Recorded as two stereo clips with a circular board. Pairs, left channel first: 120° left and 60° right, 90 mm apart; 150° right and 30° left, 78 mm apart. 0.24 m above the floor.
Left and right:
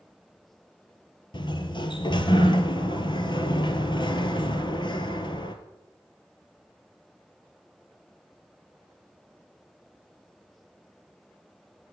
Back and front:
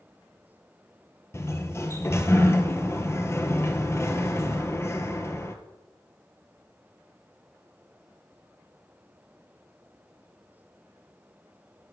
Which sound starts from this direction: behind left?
A sliding door, at 1.3 s.